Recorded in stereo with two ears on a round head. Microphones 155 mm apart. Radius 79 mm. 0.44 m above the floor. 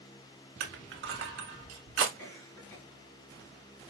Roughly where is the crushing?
Right.